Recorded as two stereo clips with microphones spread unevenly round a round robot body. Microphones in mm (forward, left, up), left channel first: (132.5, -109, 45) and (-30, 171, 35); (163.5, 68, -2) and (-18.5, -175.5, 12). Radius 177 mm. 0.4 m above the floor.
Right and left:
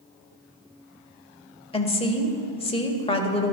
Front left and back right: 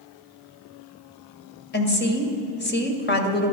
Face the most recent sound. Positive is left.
turn(degrees=10)